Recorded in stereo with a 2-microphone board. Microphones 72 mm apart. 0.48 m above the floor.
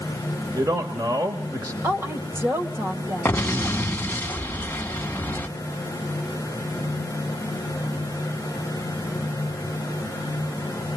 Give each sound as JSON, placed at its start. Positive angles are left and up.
{"t": 0.5, "sound": "a man speaking", "side_deg": -60, "distance_m": 1.5}
{"t": 1.8, "sound": "a woman speaking", "side_deg": -35, "distance_m": 2.0}
{"t": 3.2, "sound": "an explosion", "side_deg": 25, "distance_m": 1.3}